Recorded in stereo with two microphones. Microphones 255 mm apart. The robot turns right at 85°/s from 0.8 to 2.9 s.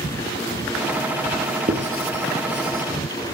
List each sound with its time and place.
1.7 s writing: 30° right (ahead or behind), 3 m; by 2.8 s 45° right (ahead or behind), 3 m